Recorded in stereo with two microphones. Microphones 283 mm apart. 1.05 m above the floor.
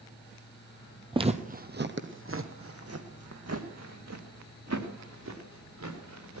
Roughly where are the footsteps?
Centre.